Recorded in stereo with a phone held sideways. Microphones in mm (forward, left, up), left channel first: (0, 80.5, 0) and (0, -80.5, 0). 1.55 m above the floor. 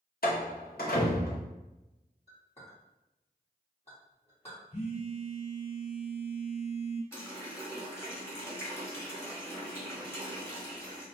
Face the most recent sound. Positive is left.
turn(degrees=15)  # may be behind; listen again after turning